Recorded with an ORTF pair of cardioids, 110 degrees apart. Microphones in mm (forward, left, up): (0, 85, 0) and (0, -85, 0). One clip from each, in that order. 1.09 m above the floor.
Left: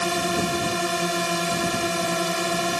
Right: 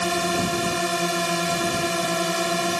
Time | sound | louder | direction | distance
0.0 | a drone | right 1 dB | 10° right | ?